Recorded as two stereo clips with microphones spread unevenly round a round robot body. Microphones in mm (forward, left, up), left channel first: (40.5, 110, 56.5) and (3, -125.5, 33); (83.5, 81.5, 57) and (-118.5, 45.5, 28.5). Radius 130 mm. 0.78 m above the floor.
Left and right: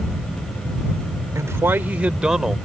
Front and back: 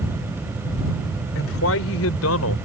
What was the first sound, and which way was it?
A man speaking, 20° right.